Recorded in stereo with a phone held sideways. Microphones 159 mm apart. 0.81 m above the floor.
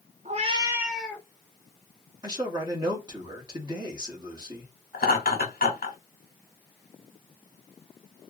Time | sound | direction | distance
0.2 | a cat meowing | 50° right (ahead or behind) | 0.6 m
2.2 | a man speaking | 25° right (ahead or behind) | 1.5 m
4.9 | laughter | 70° left (ahead or behind) | 1.3 m